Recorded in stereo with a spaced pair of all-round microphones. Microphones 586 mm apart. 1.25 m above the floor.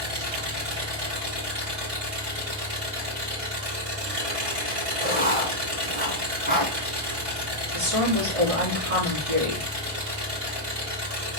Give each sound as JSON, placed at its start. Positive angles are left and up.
{"t": 0.0, "sound": "an engine running", "side_deg": -70, "distance_m": 2.5}
{"t": 5.0, "sound": "writing", "side_deg": -15, "distance_m": 1.8}
{"t": 7.7, "sound": "a woman speaking", "side_deg": -65, "distance_m": 2.0}